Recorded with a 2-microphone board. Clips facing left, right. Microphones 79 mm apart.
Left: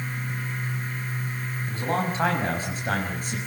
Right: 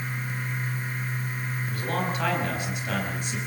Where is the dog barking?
I don't hear a dog barking.